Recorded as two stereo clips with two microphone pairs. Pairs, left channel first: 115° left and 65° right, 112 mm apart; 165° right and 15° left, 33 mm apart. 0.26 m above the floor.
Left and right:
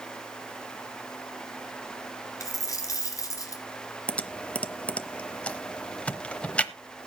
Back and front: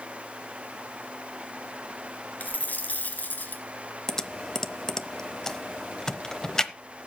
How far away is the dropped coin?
About 2 m.